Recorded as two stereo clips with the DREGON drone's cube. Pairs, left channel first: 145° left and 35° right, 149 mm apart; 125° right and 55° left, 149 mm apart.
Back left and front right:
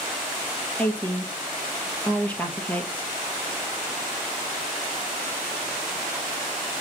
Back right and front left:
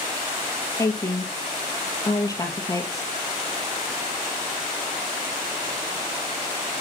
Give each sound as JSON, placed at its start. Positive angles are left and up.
{"t": 0.8, "sound": "a woman speaking", "azimuth_deg": -150, "distance_m": 1.3}